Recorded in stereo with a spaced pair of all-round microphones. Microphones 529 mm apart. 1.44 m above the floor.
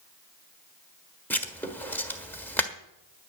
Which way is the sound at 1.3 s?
5° left (ahead or behind).